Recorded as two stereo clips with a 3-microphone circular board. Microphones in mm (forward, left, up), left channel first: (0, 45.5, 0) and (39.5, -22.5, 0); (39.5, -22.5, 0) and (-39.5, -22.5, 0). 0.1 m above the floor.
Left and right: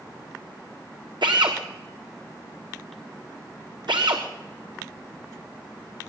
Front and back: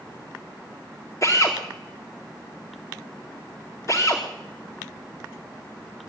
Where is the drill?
45° right, 4.5 m.